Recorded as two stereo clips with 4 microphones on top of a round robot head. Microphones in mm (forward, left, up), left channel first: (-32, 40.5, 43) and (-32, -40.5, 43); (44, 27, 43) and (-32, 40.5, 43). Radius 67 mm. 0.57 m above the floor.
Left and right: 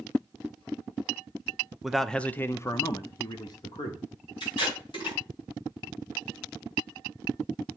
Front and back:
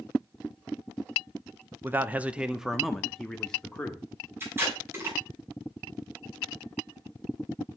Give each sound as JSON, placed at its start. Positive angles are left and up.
{"t": 1.8, "sound": "a man speaking", "azimuth_deg": -170, "distance_m": 0.6}
{"t": 4.4, "sound": "tape being pulled", "azimuth_deg": 110, "distance_m": 5.5}